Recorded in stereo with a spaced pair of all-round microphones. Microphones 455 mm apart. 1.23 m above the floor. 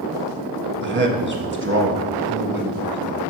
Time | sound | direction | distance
0.8 | a man speaking | 25° right (ahead or behind) | 1.0 m